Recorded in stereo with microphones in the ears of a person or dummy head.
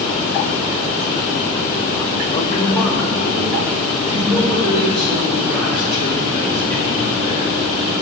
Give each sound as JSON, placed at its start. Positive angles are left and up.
{"t": 2.3, "sound": "a man speaking", "side_deg": 20, "distance_m": 0.7}